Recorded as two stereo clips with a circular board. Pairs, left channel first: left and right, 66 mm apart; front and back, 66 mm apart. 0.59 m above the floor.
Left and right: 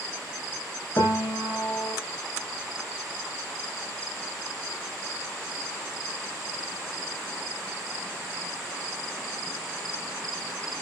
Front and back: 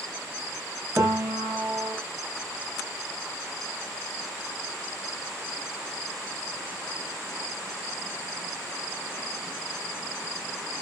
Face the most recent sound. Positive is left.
turn(degrees=130)